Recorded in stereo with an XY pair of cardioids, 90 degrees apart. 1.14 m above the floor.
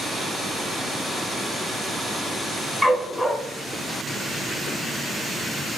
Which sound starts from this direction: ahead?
A dog barking, at 2.8 s.